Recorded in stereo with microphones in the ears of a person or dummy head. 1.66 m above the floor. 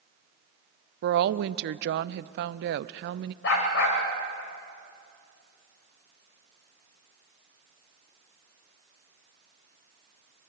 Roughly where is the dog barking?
Left.